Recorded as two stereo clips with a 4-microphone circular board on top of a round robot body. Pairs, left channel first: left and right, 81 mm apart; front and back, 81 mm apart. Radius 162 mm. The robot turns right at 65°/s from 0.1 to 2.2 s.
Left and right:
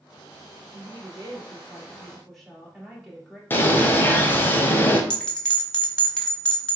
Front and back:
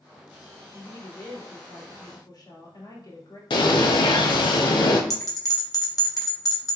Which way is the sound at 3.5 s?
25° left.